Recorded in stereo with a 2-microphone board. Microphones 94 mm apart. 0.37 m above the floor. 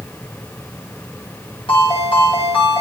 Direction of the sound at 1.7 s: 85° left.